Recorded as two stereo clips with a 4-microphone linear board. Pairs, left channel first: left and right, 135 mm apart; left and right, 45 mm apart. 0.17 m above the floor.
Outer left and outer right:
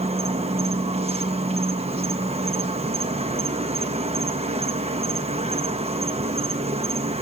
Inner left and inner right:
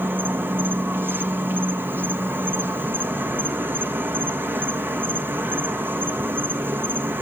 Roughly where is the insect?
Right.